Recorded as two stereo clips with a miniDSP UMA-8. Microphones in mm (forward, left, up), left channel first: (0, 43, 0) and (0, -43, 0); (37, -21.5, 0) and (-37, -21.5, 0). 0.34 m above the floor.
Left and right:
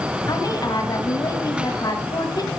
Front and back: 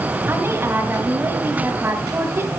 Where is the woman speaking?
120° left, 2 m.